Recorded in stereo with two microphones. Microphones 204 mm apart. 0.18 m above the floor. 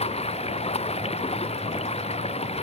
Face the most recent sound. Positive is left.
turn(degrees=30)  # may be behind; listen again after turning